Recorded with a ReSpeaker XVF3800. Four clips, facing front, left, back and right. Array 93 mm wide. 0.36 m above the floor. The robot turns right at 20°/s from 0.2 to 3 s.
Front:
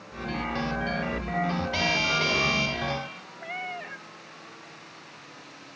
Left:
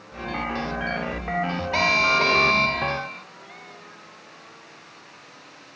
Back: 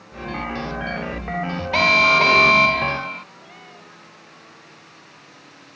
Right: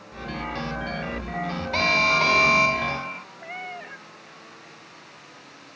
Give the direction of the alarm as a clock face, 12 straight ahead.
6 o'clock.